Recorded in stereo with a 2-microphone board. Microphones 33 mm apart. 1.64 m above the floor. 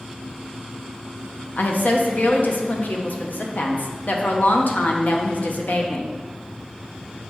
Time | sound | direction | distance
1.6 | a woman speaking | 70° left (ahead or behind) | 0.9 m